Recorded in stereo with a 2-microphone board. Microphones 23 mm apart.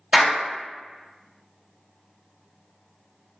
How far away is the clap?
About 1.5 m.